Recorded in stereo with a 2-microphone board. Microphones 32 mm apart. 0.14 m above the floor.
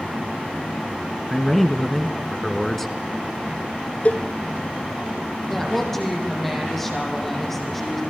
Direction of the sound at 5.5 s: 5° left (ahead or behind).